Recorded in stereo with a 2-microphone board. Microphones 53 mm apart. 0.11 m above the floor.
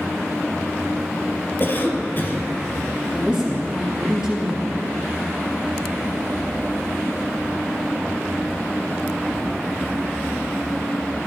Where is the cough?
40° left (ahead or behind), 3 m.